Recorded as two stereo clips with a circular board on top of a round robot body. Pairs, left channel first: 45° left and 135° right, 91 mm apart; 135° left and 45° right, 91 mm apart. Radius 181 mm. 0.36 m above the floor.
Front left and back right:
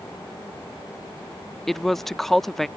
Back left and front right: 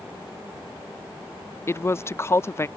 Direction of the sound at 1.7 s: 130° left.